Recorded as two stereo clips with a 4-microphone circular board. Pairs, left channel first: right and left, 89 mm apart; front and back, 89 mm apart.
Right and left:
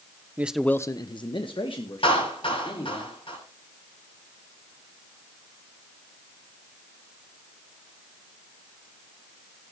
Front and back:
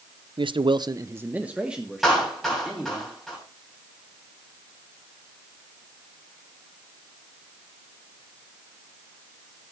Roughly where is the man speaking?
Behind.